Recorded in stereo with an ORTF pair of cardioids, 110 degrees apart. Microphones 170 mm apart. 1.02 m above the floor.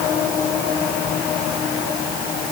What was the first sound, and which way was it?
Only background noise.